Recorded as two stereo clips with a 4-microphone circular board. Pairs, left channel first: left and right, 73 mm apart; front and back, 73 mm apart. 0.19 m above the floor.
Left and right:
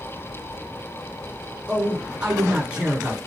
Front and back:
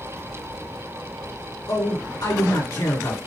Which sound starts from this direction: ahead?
A man speaking, at 1.7 s.